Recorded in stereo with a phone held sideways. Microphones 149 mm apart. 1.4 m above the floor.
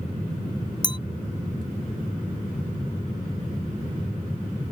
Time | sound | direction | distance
0.8 | a clink | 30° left (ahead or behind) | ?